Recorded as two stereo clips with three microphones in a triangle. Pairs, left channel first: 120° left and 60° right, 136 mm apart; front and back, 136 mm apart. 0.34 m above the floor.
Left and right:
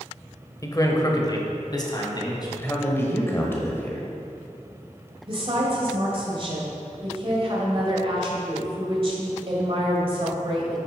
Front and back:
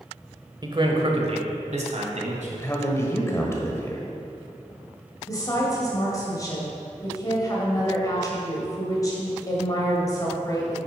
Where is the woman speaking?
50° right, 1.7 m.